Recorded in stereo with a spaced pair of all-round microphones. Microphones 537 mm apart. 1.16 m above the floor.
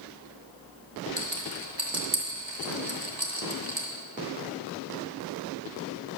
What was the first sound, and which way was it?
A rattle, 50° right (ahead or behind).